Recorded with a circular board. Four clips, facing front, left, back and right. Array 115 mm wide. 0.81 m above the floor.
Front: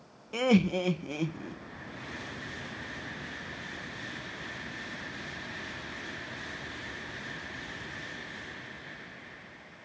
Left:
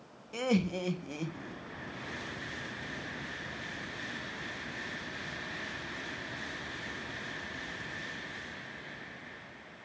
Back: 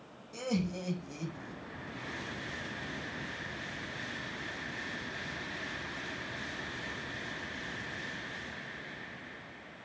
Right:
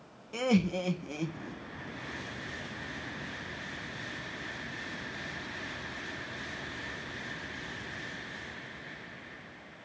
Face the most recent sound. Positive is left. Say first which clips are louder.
# right 2 dB, front 9 dB
turn(degrees=-5)